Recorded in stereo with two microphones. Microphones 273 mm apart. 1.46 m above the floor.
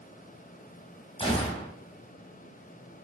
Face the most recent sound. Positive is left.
turn(degrees=20)  # may be behind; listen again after turning